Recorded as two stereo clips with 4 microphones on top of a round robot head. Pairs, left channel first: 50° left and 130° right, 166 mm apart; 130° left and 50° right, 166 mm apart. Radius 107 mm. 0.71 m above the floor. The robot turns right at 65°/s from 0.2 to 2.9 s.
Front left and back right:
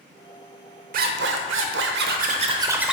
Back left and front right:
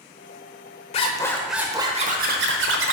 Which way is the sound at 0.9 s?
175° right.